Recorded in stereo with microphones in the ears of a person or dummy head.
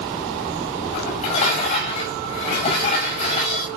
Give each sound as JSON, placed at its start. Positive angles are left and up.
{"t": 0.9, "sound": "dishes clattering", "side_deg": 35, "distance_m": 6.5}